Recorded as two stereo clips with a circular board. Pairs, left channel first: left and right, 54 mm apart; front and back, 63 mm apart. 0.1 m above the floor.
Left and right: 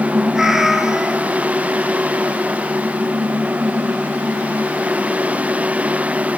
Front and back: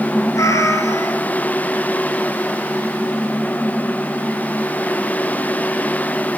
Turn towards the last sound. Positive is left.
turn(degrees=-10)